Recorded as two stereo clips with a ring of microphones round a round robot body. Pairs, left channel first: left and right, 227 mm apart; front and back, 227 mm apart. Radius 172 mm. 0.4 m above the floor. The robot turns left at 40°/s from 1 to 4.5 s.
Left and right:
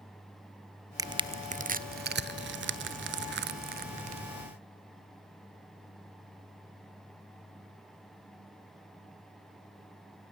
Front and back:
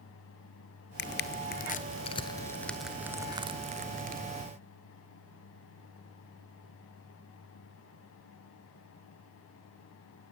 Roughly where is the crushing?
Ahead.